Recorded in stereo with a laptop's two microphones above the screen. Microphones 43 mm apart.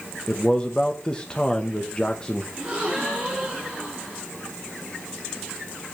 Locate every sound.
0.3 s a man speaking: 20° left (ahead or behind), 0.6 m
2.5 s a gasp: 25° right (ahead or behind), 3 m